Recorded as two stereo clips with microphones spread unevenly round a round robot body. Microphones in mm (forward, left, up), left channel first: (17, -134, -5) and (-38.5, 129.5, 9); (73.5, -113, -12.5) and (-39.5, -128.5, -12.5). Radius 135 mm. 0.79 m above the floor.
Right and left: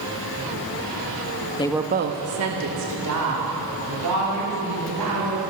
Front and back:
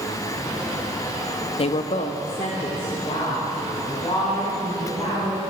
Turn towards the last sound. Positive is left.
turn(degrees=85)